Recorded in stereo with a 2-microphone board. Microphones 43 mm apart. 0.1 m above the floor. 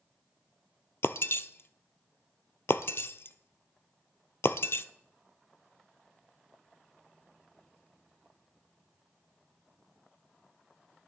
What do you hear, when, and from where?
1.0 s breaking glass: 70° left (ahead or behind), 0.5 m